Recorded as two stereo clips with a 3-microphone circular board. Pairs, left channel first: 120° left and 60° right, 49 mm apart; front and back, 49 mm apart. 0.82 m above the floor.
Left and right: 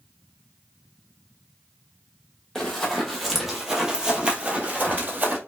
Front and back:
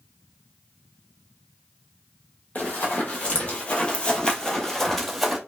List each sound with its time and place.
2.5 s running footsteps: 45° left, 1.2 m; by 5.4 s 90° right, 1.0 m